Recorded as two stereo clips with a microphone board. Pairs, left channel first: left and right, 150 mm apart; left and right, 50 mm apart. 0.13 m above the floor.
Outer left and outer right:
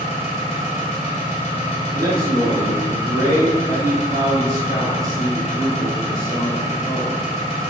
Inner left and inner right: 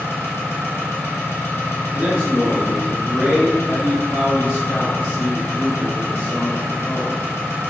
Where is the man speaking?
25° right (ahead or behind), 1.5 m.